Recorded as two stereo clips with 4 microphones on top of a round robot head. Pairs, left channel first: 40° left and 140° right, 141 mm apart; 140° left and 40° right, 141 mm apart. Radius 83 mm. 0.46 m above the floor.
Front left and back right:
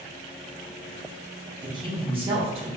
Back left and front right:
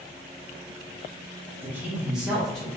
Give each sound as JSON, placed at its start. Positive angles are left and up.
{"t": 1.6, "sound": "a man speaking", "azimuth_deg": -105, "distance_m": 1.4}